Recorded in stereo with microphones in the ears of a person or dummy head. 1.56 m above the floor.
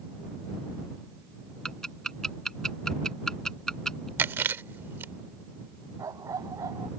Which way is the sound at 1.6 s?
5° left (ahead or behind).